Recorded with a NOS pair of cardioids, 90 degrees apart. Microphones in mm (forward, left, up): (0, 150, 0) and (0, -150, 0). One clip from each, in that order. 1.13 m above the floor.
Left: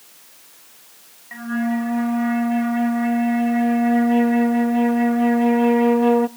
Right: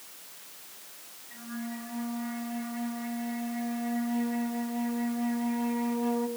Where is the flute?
65° left, 0.6 m.